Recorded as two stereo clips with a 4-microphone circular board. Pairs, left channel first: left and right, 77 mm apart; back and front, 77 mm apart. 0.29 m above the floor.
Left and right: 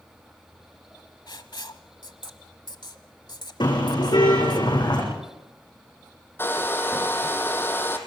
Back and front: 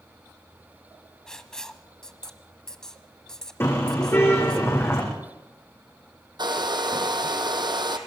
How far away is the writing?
About 1.1 m.